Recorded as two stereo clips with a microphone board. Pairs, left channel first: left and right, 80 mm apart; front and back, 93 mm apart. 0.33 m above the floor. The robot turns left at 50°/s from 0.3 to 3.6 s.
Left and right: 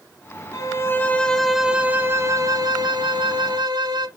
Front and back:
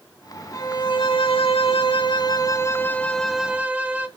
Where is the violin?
50° left, 0.6 m; by 4.1 s 105° right, 0.6 m.